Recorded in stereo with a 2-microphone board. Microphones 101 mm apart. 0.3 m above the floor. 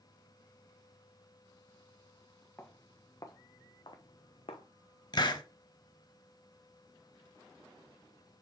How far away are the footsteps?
About 1.5 m.